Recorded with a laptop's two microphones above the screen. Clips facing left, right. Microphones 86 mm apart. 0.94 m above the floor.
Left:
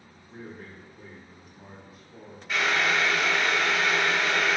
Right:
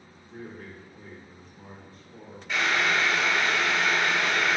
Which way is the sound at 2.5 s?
Centre (ahead or behind).